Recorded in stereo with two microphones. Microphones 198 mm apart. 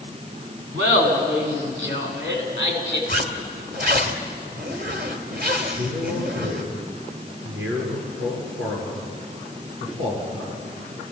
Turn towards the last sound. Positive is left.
turn(degrees=-80)